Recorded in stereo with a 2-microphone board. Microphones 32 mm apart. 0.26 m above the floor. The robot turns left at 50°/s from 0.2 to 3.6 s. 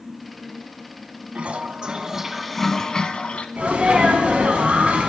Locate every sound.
1.4 s a toilet flushing: 125° right, 0.6 m; by 3.5 s 130° left, 0.6 m
3.6 s a sneeze: 50° right (ahead or behind), 1.9 m; by 5.1 s 45° right (ahead or behind), 1.9 m